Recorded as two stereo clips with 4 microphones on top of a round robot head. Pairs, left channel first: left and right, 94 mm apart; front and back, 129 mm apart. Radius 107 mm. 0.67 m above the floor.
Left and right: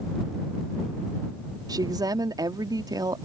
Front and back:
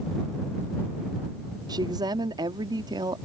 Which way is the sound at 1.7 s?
125° right.